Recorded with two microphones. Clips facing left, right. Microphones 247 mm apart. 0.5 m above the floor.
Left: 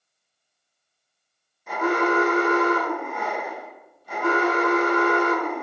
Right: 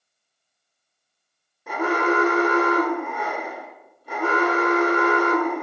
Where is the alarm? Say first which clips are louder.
Even; 65° right (ahead or behind), 1.0 m.